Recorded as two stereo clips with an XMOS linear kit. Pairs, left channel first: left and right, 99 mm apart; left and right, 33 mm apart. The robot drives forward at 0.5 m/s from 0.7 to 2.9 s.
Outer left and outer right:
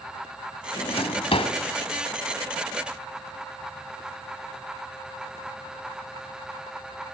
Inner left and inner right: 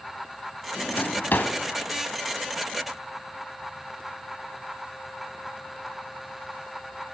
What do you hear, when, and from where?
0.8 s a drawer: 75° left (ahead or behind), 2.5 m